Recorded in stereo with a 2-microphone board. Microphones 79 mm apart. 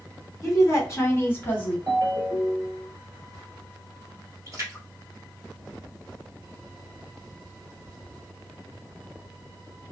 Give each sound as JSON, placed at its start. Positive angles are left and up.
{"t": 0.4, "sound": "a woman speaking", "side_deg": 45, "distance_m": 1.8}
{"t": 1.9, "sound": "a ringtone", "side_deg": -45, "distance_m": 1.6}
{"t": 4.5, "sound": "a splash", "side_deg": -40, "distance_m": 1.5}